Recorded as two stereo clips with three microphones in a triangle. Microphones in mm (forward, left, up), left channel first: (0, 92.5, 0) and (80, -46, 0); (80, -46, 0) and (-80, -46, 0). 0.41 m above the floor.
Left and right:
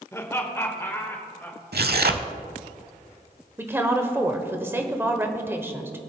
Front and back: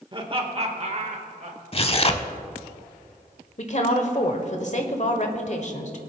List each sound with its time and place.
0.1 s laughter: 175° left, 1.4 m; by 1.6 s 165° right, 2.0 m
1.7 s tearing paper: 55° right, 0.7 m
3.6 s a woman speaking: 10° left, 1.2 m